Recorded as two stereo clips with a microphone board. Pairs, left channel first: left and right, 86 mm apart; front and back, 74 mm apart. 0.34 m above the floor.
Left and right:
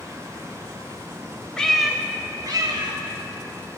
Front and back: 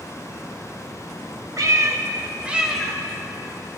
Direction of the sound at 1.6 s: 165° left.